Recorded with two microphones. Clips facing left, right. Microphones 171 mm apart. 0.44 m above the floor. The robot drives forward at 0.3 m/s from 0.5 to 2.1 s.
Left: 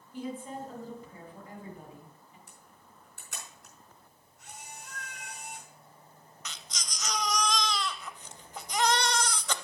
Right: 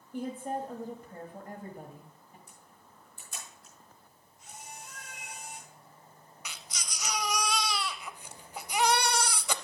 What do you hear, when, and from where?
0.1 s a woman speaking: 55° right (ahead or behind), 1.9 m; by 2.4 s 45° right (ahead or behind), 2 m
2.5 s a camera shutter: 75° left (ahead or behind), 5 m
4.8 s a cat meowing: 25° right (ahead or behind), 0.9 m
6.5 s a baby crying: 10° right (ahead or behind), 0.6 m